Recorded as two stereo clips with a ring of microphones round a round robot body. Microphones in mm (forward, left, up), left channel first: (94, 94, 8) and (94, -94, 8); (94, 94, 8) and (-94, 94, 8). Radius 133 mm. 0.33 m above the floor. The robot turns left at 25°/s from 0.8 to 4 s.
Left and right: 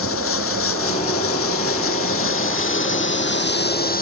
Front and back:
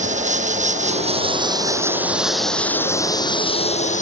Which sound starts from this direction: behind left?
Running water, at 0.0 s.